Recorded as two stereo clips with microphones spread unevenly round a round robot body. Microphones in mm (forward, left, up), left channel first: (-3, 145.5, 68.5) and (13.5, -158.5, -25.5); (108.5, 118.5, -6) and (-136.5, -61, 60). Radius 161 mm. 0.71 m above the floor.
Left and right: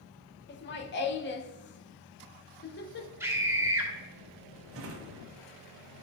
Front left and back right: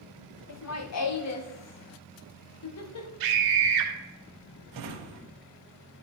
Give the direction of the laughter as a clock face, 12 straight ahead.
11 o'clock.